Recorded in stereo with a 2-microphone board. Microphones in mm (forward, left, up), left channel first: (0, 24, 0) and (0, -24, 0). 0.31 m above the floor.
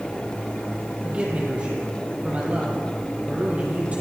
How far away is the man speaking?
About 8.5 m.